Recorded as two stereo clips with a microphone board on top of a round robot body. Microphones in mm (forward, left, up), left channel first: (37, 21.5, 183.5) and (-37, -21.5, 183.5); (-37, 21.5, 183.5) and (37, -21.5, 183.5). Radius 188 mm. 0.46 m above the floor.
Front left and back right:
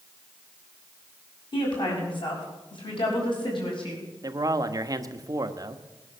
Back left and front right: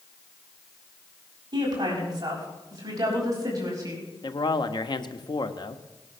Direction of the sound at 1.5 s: 5° left.